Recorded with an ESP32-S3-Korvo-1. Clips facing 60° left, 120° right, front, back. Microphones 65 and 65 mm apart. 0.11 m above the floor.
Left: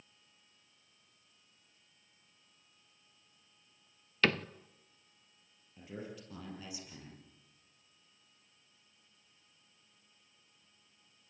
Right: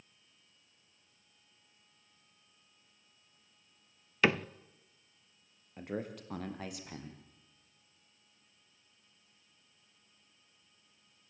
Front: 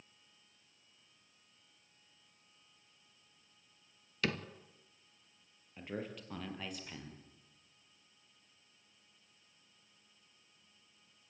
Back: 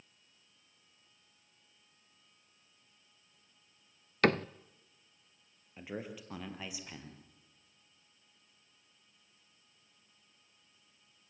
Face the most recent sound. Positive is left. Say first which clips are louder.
# right 6 dB, even
turn(degrees=-100)